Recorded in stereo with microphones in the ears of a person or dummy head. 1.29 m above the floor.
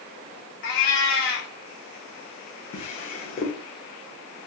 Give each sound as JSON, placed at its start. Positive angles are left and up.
{"t": 0.6, "sound": "a cat meowing", "side_deg": 60, "distance_m": 1.0}
{"t": 2.7, "sound": "a drawer", "side_deg": 40, "distance_m": 0.7}